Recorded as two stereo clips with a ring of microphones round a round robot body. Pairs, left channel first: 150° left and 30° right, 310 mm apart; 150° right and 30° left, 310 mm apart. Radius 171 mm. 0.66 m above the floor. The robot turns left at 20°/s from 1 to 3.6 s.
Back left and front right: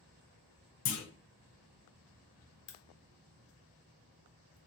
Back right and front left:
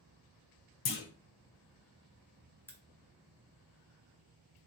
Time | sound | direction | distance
0.8 | a clunk | 155° right | 0.9 m
2.7 | a crack | 125° left | 0.9 m